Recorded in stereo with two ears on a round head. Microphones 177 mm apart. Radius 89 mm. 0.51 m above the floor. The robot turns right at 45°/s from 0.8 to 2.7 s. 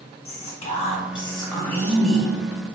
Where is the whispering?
115° left, 1.1 m; by 2.3 s 175° right, 1.1 m.